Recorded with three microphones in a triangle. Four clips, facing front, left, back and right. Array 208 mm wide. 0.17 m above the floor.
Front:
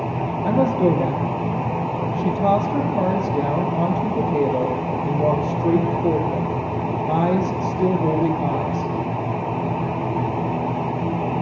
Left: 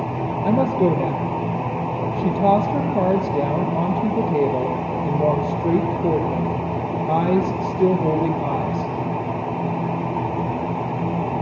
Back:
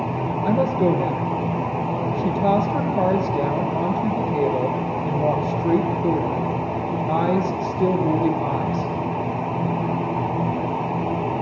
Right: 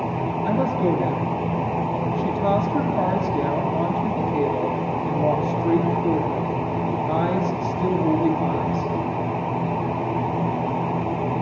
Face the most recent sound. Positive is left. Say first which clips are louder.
# left 4 dB, front 1 dB
turn(degrees=65)